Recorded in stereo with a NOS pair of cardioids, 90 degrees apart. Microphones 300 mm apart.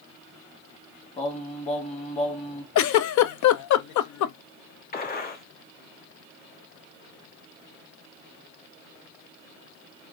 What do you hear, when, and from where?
1.2 s singing: 25° left, 1.4 m
2.8 s a giggle: 65° left, 0.5 m
4.9 s a gunshot: 30° left, 1.0 m